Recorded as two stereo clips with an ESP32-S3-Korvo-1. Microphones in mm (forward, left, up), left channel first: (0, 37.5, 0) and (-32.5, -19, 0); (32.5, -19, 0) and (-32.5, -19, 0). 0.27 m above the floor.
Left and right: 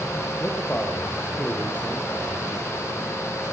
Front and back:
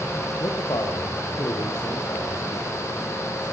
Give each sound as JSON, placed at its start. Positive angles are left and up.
{"t": 0.4, "sound": "a man speaking", "azimuth_deg": -5, "distance_m": 5.5}